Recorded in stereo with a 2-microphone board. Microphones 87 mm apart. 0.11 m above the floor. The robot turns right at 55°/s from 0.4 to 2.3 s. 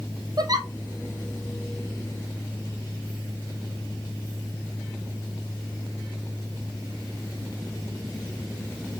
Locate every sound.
0.4 s a giggle: 50° right (ahead or behind), 1.9 m; by 0.7 s 35° right (ahead or behind), 1.9 m